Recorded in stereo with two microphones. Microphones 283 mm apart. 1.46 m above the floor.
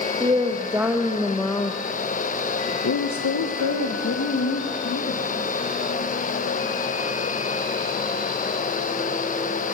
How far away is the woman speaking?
About 1.9 m.